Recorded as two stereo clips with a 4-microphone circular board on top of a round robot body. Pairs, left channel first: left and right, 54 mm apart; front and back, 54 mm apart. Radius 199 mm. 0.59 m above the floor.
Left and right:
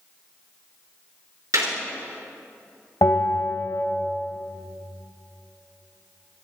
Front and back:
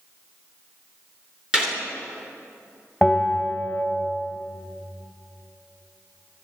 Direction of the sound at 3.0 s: 90° left.